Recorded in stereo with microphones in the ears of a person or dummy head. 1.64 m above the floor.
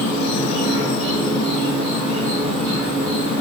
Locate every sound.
0.0 s an insect: 50° right (ahead or behind), 1.6 m